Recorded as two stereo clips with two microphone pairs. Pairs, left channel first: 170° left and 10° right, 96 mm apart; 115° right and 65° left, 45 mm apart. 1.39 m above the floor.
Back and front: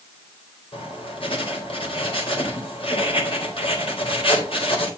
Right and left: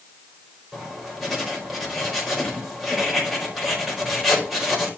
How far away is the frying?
No frying in this recording.